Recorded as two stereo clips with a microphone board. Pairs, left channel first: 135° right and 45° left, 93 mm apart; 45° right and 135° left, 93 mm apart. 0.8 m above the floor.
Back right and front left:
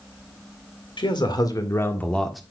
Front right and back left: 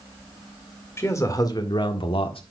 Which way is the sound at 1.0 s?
105° right.